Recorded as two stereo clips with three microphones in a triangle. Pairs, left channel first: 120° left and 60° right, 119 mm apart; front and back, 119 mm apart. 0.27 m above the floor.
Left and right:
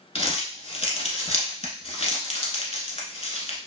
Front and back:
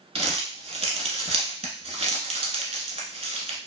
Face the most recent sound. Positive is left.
turn(degrees=150)